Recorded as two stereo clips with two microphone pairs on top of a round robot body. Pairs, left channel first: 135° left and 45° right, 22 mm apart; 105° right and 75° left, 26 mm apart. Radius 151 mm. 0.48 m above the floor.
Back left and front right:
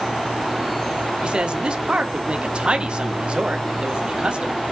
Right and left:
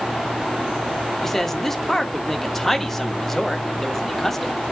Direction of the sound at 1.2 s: 25° right.